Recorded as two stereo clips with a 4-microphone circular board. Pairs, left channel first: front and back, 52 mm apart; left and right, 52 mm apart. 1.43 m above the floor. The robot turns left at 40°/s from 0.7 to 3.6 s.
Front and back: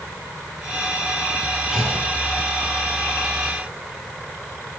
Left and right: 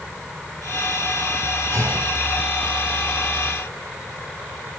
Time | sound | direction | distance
1.7 | a clunk | 100° right | 5.5 m